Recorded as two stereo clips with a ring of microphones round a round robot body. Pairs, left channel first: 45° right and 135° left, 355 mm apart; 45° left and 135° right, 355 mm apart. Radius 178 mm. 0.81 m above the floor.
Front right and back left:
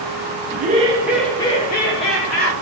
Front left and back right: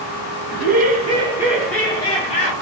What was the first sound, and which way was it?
Laughter, 175° right.